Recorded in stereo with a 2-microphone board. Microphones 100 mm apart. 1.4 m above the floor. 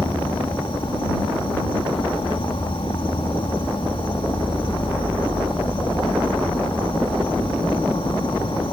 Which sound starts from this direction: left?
An insect, at 0.0 s.